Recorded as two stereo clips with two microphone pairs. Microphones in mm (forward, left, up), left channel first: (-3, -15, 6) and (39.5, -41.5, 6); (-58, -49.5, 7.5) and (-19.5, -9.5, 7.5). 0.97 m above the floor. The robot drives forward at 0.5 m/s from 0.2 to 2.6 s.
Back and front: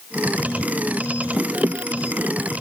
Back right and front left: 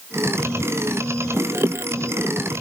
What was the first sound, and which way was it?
Only background noise.